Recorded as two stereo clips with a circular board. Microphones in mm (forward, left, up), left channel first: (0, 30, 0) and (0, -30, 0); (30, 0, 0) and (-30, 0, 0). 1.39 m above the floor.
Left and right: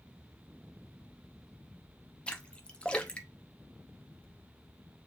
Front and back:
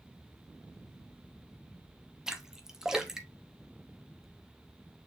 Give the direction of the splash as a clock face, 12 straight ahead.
8 o'clock.